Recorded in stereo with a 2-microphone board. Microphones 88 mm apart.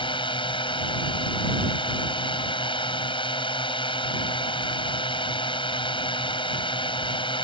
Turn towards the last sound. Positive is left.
turn(degrees=70)  # may be behind; listen again after turning